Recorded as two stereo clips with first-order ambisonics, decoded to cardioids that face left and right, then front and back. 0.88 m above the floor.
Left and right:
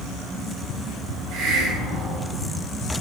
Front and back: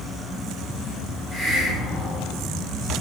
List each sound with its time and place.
1.3 s a hiss: 65° right, 2.5 m